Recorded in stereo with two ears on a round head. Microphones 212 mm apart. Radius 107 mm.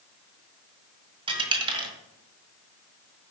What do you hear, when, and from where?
1.3 s a dropped coin: 20° right (ahead or behind), 1.5 m